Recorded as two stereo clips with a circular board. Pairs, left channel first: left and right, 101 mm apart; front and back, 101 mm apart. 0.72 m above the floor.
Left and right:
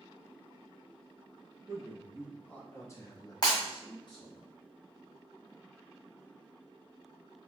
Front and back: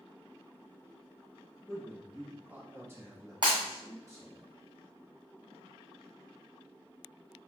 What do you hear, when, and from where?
1.7 s a man speaking: 75° right, 0.6 m; by 4.4 s 120° left, 1.4 m
3.4 s breaking glass: 135° left, 1.9 m